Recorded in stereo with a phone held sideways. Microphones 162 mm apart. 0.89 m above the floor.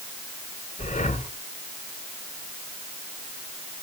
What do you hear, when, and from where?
0.8 s breathing: 45° left (ahead or behind), 1.3 m